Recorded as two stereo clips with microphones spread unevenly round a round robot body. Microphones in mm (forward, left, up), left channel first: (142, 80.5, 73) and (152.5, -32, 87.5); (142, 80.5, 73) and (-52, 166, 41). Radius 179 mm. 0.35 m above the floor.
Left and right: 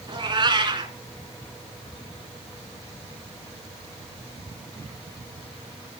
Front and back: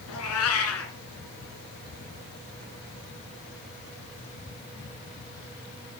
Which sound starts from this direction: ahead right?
A cat meowing, at 0.1 s.